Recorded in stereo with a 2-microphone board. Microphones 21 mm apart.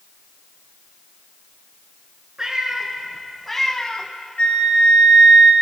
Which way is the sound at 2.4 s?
25° right (ahead or behind).